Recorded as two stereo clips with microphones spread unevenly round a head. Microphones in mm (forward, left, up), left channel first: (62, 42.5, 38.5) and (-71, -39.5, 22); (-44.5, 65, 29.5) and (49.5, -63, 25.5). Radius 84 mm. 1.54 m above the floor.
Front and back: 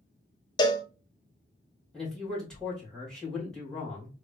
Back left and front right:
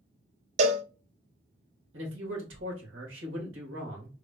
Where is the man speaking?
55° right, 2 m.